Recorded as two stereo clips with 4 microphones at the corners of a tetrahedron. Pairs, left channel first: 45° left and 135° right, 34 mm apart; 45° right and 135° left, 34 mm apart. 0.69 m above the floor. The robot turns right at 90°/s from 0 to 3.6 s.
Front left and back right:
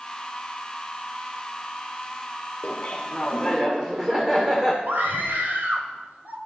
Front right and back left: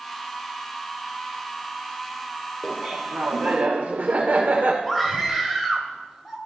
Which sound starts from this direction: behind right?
A scream, at 4.8 s.